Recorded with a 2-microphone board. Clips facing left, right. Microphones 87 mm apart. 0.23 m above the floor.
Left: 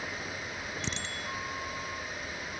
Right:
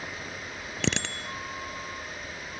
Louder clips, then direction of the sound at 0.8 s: Right 6 dB; 65° right (ahead or behind).